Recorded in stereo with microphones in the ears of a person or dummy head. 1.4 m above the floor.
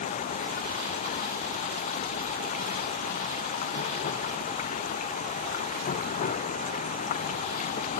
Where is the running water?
40° left (ahead or behind).